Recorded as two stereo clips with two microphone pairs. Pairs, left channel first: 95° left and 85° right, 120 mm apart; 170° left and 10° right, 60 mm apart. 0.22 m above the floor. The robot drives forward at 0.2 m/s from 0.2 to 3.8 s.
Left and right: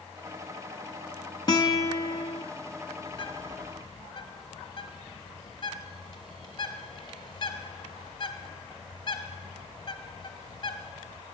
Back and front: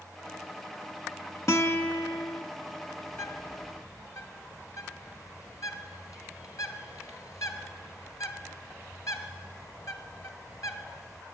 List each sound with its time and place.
1.5 s a guitar: 145° left, 0.9 m; by 2.4 s 150° left, 1.0 m
3.1 s a bird: 135° left, 0.8 m; by 11.2 s 145° left, 1.0 m